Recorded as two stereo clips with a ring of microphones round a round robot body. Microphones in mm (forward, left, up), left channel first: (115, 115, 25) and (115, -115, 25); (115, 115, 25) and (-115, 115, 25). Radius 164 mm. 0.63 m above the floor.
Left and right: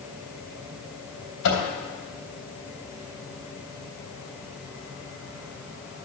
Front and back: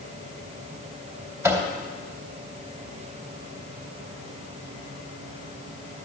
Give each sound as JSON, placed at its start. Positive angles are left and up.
{"t": 1.4, "sound": "a microwave", "azimuth_deg": 100, "distance_m": 2.5}